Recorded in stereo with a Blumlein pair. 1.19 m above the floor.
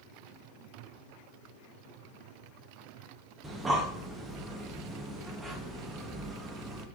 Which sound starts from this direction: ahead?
Breathing, at 3.4 s.